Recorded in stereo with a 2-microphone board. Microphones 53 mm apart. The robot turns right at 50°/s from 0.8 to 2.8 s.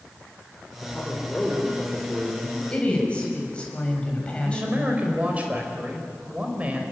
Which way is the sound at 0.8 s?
145° left.